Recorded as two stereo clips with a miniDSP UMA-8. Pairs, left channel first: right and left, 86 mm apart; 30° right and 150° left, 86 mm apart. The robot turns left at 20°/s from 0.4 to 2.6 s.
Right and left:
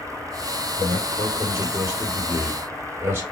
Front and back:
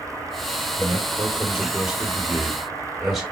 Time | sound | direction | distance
0.8 | a man speaking | 100° left | 1.4 m